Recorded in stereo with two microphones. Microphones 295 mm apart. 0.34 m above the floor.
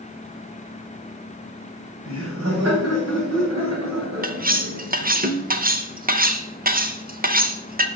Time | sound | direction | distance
2.0 | laughter | 45° right (ahead or behind) | 2.5 m
4.2 | cutlery clinking | 30° right (ahead or behind) | 0.7 m